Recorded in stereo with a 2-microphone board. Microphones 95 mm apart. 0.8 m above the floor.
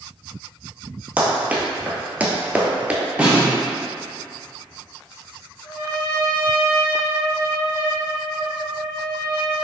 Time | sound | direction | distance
1.2 | running footsteps | 15° right (ahead or behind) | 1.1 m
3.2 | a snare drum | 15° right (ahead or behind) | 1.1 m
5.6 | a trumpet | 60° left (ahead or behind) | 1.3 m